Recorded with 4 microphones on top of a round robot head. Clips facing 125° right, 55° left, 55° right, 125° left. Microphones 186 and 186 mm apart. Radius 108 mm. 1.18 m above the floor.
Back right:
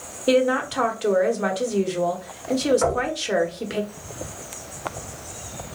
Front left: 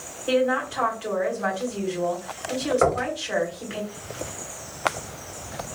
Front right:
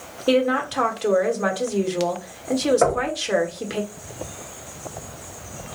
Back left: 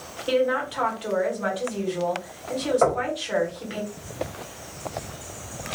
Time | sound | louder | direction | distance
0.3 | a woman speaking | back right 3 dB, front right 3 dB | 85° right | 1.0 m
2.8 | knocking | front left 1 dB, front right 2 dB | 20° left | 1.0 m